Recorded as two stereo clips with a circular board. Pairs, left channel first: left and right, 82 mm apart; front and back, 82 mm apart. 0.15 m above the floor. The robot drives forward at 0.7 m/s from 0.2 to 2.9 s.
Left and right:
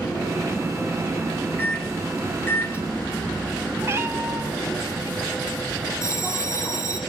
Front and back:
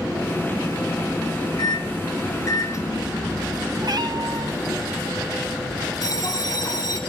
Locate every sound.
1.6 s a microwave: 25° left, 1.9 m; by 4.8 s 45° left, 1.3 m
3.8 s a cat meowing: 150° right, 1.3 m
6.0 s a bell: 40° left, 3 m